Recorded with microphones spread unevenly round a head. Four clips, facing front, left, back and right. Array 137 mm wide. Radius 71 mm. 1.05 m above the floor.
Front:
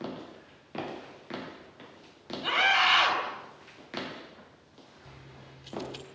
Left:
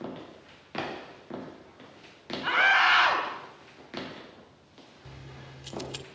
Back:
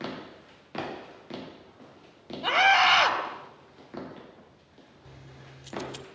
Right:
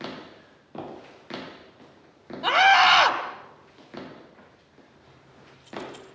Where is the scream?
120° right, 5 m.